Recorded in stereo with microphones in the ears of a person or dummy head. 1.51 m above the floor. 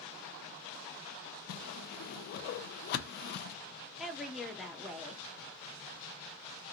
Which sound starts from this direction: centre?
A woman speaking, at 4.0 s.